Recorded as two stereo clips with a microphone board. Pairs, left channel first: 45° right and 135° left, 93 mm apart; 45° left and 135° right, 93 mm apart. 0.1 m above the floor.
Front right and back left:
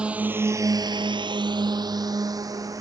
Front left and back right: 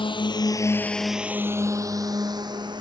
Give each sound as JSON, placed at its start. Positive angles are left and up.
{"t": 0.0, "sound": "a drone", "azimuth_deg": 55}